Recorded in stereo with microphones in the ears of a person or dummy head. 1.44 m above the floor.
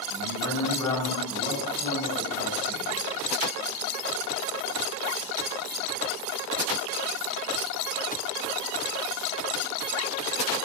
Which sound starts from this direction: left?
A man speaking, at 0.1 s.